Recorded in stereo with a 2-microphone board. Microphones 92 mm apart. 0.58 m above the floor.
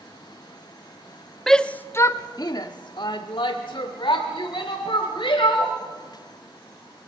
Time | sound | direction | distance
1.5 | a shout | 5° left (ahead or behind) | 0.6 m